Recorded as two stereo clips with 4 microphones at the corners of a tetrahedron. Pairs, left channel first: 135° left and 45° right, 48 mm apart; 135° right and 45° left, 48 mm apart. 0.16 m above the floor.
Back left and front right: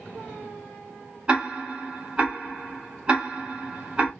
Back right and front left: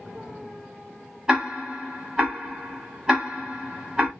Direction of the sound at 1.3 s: 10° right.